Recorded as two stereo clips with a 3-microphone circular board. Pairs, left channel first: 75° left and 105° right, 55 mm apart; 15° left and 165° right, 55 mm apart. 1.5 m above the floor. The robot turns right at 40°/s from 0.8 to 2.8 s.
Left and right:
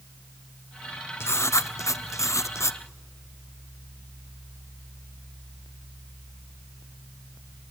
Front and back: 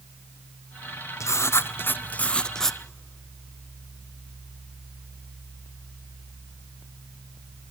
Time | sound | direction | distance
1.2 | writing | 40° left | 0.6 m